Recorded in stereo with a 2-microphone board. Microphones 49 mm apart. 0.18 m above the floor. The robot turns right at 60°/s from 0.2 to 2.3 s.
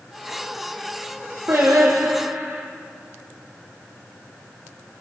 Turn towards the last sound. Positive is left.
turn(degrees=-75)